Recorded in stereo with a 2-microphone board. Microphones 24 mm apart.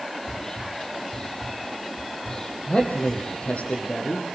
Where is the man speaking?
70° left (ahead or behind), 4.5 m.